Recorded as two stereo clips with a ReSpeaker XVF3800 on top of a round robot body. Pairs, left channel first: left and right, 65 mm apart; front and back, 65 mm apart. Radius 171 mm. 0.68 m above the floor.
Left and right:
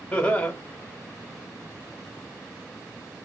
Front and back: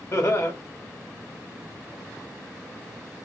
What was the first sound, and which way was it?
Laughter, 25° left.